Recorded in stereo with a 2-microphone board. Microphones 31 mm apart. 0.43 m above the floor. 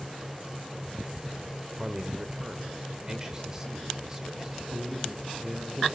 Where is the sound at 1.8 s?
20° right (ahead or behind), 1.5 m.